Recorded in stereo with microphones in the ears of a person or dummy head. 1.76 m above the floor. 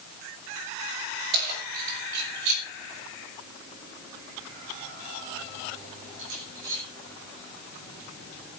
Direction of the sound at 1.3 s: 60° right (ahead or behind).